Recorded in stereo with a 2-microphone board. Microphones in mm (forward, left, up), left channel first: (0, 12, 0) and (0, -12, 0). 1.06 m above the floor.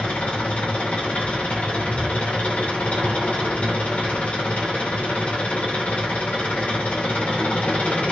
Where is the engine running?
80° left, 4 m.